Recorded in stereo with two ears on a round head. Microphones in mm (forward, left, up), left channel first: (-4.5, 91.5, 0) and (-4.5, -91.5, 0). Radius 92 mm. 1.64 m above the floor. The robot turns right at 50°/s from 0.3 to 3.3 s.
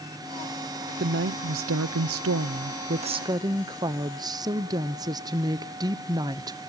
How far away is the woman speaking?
About 0.6 m.